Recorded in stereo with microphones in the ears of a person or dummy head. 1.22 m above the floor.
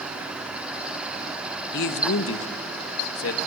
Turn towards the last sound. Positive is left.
turn(degrees=80)